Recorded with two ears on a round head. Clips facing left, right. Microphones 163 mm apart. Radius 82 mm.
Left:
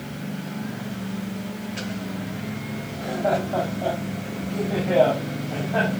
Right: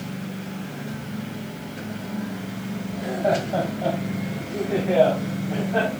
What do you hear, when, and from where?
2.9 s laughter: 15° right (ahead or behind), 7 m; by 5.9 s 5° left (ahead or behind), 8 m